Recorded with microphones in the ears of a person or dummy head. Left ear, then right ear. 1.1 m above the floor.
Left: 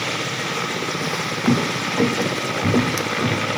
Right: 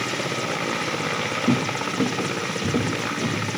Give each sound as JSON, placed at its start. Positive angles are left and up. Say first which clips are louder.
{"t": 1.0, "sound": "footsteps", "louder": "left 2 dB", "side_deg": 70, "distance_m": 3.0}